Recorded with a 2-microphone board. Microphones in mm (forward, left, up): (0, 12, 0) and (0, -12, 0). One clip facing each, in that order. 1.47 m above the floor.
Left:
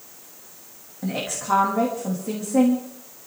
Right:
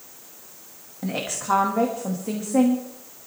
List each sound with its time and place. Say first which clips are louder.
1.0 s a woman speaking: even; 15° right (ahead or behind), 2 m